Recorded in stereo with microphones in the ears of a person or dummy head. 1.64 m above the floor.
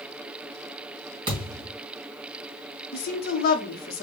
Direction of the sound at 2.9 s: 45° left (ahead or behind).